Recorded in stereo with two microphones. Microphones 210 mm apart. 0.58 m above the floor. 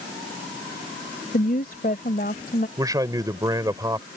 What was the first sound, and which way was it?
A woman speaking, 45° left (ahead or behind).